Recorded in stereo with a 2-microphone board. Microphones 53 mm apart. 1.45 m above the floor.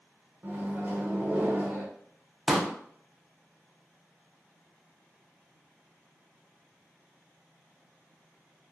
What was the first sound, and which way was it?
A microwave, 35° right (ahead or behind).